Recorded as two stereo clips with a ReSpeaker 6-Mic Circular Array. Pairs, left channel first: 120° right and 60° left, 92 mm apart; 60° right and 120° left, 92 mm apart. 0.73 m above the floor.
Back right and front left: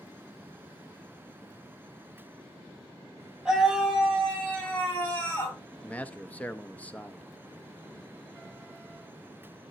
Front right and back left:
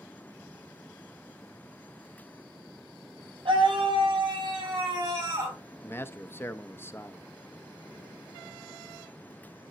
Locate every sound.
3.5 s a scream: 145° left, 5.5 m; by 5.6 s 175° left, 6 m
5.8 s a man speaking: 70° right, 0.7 m